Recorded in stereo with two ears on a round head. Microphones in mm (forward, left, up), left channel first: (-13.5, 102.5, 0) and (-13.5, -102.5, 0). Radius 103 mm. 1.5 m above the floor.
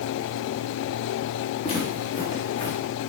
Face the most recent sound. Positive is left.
turn(degrees=30)  # may be behind; listen again after turning